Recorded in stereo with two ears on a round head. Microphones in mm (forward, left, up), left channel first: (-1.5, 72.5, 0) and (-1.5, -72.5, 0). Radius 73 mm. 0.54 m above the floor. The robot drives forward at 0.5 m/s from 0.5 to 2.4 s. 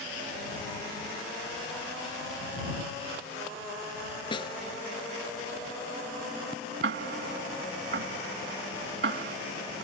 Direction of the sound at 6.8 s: 65° right (ahead or behind).